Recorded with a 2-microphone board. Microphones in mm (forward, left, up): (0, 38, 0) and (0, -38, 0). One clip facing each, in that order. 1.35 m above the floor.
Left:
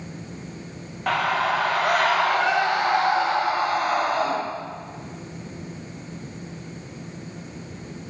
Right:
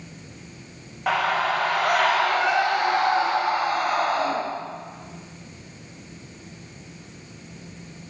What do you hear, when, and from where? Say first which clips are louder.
1.1 s a scream: even; 5° right (ahead or behind), 0.8 m; by 4.4 s 15° left (ahead or behind), 2.5 m